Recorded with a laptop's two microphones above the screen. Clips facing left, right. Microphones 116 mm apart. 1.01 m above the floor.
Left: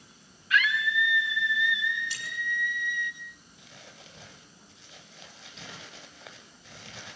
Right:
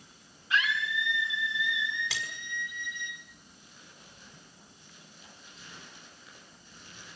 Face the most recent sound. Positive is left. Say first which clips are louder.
# left 8 dB
turn(degrees=75)  # may be behind; listen again after turning